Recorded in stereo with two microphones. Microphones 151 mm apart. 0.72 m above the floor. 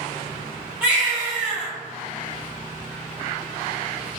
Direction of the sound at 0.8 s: 10° right (ahead or behind).